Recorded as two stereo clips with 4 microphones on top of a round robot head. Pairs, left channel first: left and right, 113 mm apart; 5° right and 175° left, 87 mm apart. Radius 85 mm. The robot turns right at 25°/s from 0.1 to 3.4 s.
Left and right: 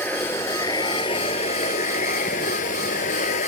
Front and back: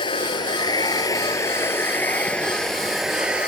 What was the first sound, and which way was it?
Running water, 10° left.